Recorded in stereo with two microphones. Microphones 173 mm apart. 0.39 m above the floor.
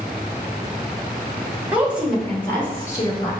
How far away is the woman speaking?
About 1.2 m.